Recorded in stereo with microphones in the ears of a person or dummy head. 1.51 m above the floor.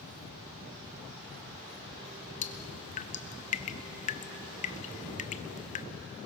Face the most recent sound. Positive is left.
turn(degrees=35)  # may be behind; listen again after turning